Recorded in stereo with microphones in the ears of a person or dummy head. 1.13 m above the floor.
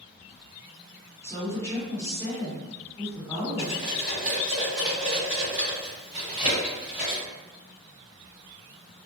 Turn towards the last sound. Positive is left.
turn(degrees=-15)  # may be behind; listen again after turning